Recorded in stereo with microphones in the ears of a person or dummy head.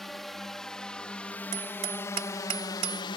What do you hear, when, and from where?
0.0 s a drone: centre (ahead or behind); by 3.2 s 25° left (ahead or behind)
1.5 s hammering: 30° right (ahead or behind)